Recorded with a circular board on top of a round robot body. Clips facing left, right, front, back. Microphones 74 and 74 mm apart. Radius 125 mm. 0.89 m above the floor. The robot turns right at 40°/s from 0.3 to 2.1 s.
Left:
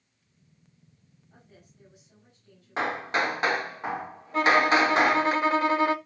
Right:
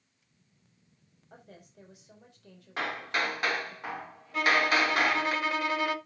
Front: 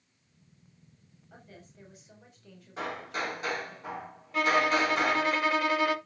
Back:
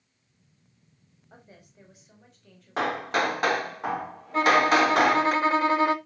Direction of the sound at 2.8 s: 155° left.